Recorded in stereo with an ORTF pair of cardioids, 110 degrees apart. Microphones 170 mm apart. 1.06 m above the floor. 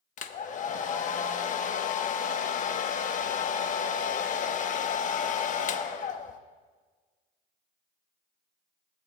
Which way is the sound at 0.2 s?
50° left.